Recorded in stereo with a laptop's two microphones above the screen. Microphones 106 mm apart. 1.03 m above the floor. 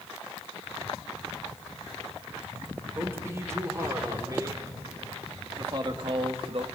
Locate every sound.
3.0 s a man speaking: 20° right (ahead or behind), 4.5 m; by 6.7 s 60° right (ahead or behind), 1.6 m